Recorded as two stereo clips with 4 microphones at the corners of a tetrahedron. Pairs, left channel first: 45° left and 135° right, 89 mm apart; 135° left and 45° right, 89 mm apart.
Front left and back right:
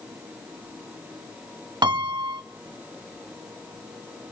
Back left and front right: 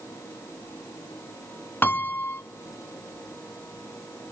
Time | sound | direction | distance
1.8 | a piano | 160° right | 0.6 m